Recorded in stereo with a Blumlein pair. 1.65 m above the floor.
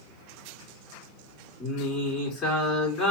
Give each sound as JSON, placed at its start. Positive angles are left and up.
{"t": 1.6, "sound": "singing", "azimuth_deg": 25, "distance_m": 2.5}